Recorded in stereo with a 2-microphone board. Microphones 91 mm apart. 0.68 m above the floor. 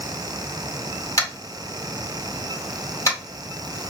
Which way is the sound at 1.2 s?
30° left (ahead or behind).